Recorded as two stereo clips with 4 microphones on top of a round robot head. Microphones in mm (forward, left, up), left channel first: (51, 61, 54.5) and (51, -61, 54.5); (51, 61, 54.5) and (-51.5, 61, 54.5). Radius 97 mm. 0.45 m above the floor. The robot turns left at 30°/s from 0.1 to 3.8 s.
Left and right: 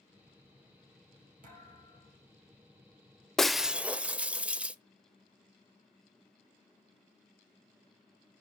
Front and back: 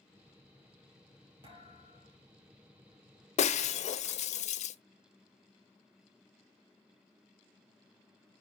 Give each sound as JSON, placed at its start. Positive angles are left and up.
{"t": 1.4, "sound": "a thud", "azimuth_deg": -120, "distance_m": 4.0}
{"t": 3.4, "sound": "breaking glass", "azimuth_deg": 5, "distance_m": 0.7}